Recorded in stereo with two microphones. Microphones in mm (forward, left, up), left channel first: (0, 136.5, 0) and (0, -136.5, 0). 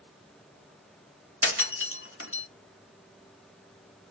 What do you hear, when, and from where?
1.4 s breaking glass: 50° left (ahead or behind), 0.8 m